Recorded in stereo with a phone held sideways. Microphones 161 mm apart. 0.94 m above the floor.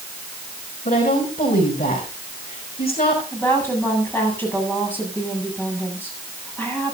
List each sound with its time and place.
0.8 s a woman speaking: 75° left (ahead or behind), 7 m
3.3 s a woman speaking: 10° left (ahead or behind), 8 m